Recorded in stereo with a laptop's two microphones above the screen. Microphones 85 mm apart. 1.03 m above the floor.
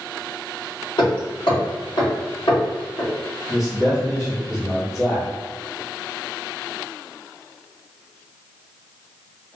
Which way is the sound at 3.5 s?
35° left (ahead or behind).